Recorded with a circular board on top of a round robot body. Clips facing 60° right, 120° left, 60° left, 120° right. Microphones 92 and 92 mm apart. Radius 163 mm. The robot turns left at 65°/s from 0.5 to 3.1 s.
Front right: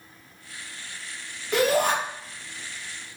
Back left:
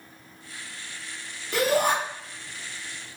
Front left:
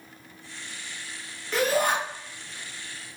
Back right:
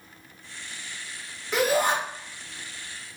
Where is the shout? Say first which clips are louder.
Front right 1 dB, back right 1 dB; 35° right, 4 m; by 1.9 s 65° right, 4 m.